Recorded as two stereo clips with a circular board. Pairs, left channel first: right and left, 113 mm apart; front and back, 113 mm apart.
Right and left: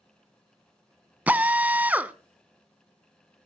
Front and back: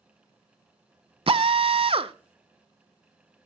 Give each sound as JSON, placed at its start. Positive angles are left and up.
{"t": 1.3, "sound": "a drill", "azimuth_deg": 165, "distance_m": 0.6}